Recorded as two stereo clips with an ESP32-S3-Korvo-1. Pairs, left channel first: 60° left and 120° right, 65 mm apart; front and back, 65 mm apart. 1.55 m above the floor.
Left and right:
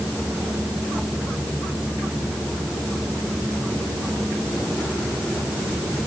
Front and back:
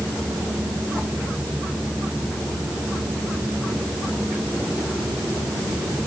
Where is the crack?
No crack in this recording.